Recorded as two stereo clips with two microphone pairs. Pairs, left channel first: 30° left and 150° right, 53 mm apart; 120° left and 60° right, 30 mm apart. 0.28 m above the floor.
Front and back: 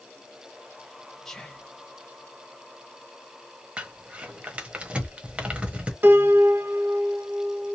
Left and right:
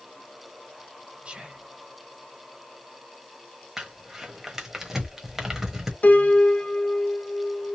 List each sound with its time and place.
1.2 s whispering: 50° right, 1.2 m
3.8 s crumpling: 115° right, 1.1 m
6.0 s a piano: 155° left, 0.7 m